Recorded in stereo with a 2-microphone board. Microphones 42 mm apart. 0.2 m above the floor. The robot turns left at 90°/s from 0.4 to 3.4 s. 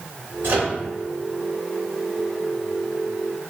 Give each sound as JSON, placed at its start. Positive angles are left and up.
{"t": 0.4, "sound": "a microwave", "side_deg": -60, "distance_m": 1.7}